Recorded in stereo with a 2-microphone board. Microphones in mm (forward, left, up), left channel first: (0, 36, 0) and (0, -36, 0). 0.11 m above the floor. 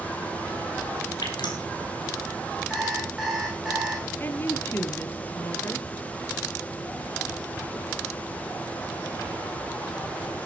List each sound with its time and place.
1.2 s dripping: 70° left (ahead or behind), 3 m
2.7 s an alarm clock: 5° right (ahead or behind), 5 m
4.2 s a woman speaking: 30° left (ahead or behind), 2 m